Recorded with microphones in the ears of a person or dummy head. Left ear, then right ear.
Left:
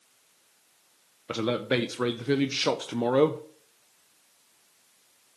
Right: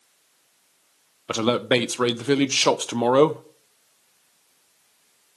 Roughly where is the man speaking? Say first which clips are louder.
Right 6 dB; right.